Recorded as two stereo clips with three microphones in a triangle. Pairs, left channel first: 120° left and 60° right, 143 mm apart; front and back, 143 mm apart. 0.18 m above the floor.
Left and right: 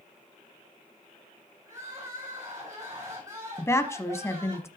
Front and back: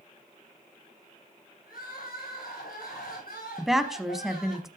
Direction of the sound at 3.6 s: 95° left.